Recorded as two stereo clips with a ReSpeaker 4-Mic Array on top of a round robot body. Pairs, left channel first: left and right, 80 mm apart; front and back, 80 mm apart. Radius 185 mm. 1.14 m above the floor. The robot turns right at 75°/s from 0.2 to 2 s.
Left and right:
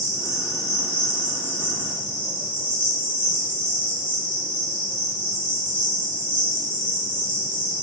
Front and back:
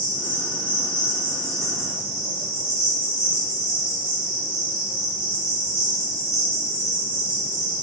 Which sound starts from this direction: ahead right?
An insect, at 0.0 s.